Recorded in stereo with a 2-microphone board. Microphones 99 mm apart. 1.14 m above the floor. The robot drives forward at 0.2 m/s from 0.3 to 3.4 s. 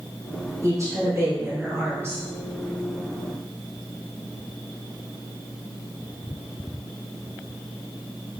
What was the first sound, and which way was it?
A woman speaking, 35° right (ahead or behind).